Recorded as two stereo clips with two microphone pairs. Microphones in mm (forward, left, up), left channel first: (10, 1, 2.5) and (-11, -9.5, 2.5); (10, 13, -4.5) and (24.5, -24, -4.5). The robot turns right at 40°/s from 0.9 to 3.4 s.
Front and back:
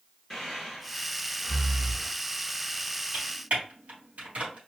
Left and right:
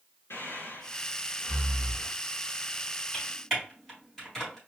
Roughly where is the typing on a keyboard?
Behind.